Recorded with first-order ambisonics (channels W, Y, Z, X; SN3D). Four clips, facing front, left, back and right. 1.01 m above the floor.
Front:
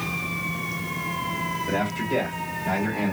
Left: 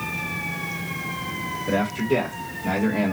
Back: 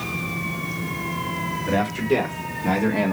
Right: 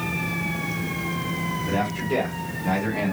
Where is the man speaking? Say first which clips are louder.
Left 4 dB, back 7 dB; 170° left, 2.5 m; by 3.1 s 155° left, 1.8 m.